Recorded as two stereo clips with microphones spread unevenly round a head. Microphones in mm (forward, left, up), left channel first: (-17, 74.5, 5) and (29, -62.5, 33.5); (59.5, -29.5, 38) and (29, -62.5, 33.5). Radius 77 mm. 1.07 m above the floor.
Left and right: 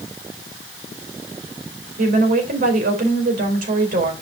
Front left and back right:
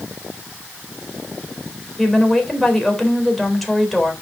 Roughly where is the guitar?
I don't hear a guitar.